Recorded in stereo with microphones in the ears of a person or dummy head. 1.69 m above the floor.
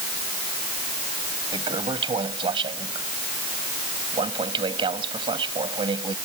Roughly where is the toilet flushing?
Right.